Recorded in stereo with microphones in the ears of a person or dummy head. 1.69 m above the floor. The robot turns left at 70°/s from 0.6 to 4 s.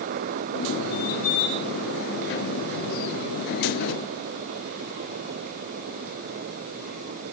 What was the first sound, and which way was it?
Only background noise.